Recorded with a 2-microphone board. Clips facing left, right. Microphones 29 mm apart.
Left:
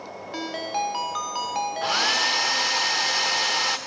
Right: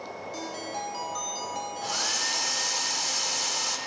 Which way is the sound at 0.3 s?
45° left (ahead or behind).